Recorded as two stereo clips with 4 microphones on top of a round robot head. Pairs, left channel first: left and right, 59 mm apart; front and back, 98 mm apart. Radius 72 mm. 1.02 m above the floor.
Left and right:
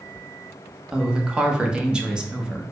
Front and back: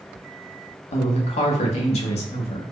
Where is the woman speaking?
15° right, 0.8 m.